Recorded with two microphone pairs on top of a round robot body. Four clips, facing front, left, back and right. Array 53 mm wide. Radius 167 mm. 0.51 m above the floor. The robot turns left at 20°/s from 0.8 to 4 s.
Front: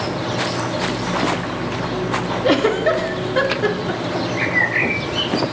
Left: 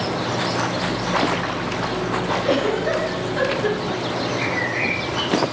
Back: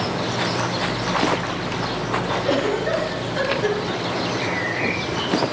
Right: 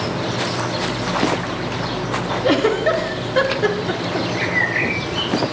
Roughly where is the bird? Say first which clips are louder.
Right 5 dB, front 5 dB; ahead right.